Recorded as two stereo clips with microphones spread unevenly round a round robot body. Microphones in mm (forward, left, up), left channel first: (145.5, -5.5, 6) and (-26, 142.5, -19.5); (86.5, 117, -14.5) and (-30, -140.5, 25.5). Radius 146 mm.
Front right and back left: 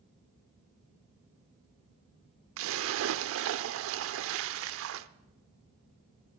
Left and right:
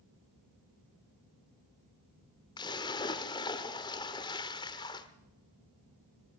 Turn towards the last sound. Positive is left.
turn(degrees=145)